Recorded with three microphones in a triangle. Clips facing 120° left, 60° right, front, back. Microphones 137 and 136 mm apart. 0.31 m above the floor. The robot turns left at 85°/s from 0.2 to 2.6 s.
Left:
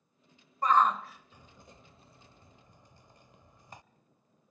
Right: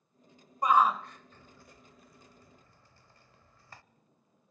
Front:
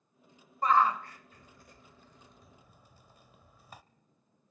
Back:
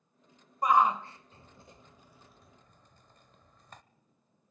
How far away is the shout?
About 0.9 m.